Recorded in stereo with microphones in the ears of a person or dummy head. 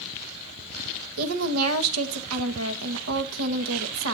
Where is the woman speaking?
85° right, 1.7 m.